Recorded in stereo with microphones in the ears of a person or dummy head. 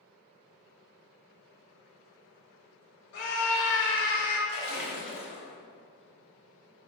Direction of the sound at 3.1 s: 65° left (ahead or behind).